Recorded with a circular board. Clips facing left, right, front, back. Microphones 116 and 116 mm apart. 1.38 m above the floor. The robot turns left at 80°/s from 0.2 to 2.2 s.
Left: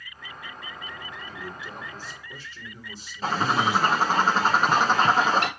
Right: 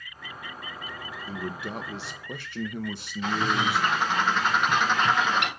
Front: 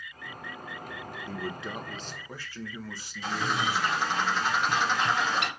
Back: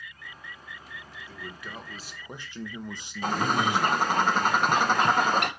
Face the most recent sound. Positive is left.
turn(degrees=140)